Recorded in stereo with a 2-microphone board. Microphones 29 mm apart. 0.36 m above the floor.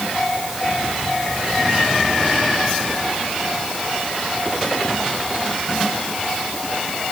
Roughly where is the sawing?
I don't hear sawing.